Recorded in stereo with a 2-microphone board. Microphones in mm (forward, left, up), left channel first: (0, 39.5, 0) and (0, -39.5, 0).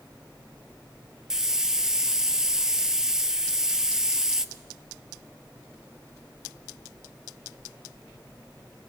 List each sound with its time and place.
1.3 s a hiss: 10° right (ahead or behind), 0.7 m